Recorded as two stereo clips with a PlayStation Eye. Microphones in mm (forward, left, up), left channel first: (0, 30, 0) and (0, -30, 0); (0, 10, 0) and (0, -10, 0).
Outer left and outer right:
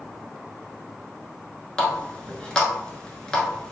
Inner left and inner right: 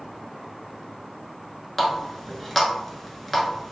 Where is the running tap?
15° left (ahead or behind), 0.9 m.